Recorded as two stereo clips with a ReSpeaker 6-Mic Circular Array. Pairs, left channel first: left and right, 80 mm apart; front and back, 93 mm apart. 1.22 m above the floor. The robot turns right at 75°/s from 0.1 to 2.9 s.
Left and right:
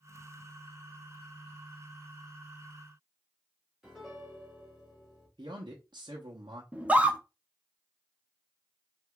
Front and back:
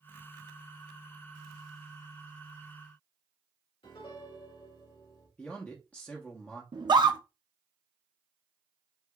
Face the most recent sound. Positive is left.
turn(degrees=-160)